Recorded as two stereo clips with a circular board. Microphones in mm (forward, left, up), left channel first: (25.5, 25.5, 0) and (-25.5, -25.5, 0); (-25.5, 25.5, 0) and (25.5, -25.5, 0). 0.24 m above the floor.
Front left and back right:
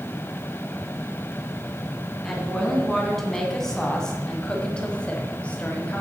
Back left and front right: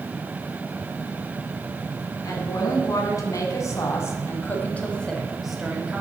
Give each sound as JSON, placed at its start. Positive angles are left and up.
{"t": 2.2, "sound": "a woman speaking", "azimuth_deg": 135, "distance_m": 2.5}